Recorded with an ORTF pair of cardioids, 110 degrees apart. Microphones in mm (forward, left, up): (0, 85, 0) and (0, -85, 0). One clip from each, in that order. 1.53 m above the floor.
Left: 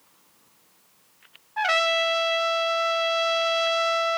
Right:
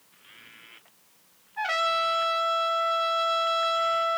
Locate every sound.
1.6 s a trumpet: 45° left, 0.6 m